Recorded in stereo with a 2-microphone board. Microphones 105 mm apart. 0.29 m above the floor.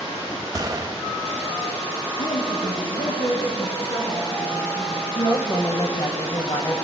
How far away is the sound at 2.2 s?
About 5 m.